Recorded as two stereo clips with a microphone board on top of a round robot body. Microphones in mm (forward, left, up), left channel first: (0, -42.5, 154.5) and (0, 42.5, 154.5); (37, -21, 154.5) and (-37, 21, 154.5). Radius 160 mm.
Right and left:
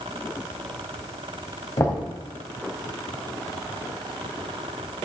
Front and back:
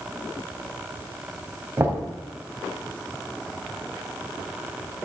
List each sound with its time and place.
1.8 s knocking: 145° right, 2.5 m